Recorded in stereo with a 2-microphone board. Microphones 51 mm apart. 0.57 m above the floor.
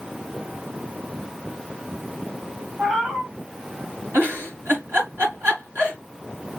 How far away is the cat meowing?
About 2 m.